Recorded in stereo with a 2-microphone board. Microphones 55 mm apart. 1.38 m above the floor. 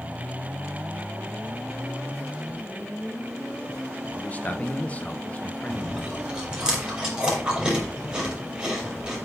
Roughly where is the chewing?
Centre.